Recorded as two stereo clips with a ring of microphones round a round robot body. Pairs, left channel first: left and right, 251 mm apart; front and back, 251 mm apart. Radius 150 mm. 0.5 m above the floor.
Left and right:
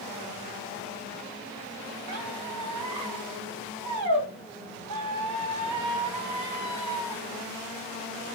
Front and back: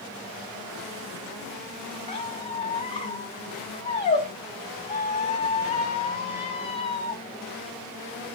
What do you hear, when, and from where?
2.1 s a squeak: 65° right, 3 m